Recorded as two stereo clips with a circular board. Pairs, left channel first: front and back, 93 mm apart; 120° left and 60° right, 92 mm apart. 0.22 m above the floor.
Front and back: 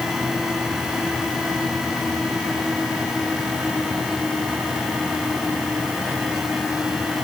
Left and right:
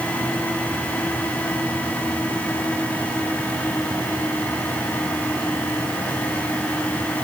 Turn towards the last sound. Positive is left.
No sound to turn to.